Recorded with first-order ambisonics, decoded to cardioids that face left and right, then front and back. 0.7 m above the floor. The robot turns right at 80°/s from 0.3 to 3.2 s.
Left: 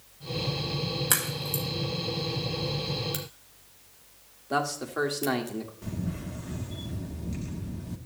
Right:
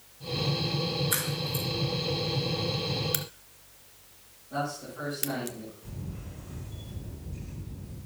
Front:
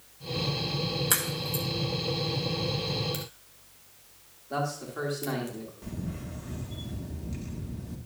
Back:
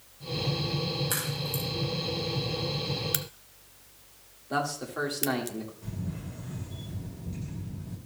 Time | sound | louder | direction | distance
1.1 | a crack | left 1 dB, front 2 dB | 65° left | 2.5 m
3.1 | a crack | right 2 dB, back 3 dB | 150° right | 0.6 m
4.5 | a man speaking | left 5 dB, back 2 dB | 105° left | 1.6 m
5.8 | a camera shutter | left 7 dB, front 2 dB | 65° left | 1.3 m